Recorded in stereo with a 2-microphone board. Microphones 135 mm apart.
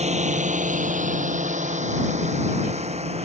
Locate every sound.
0.0 s a drone: 55° right (ahead or behind); by 3.2 s 50° right (ahead or behind)